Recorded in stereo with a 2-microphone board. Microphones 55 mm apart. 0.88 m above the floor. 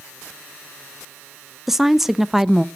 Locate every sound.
1.7 s a woman speaking: 5° right (ahead or behind), 0.6 m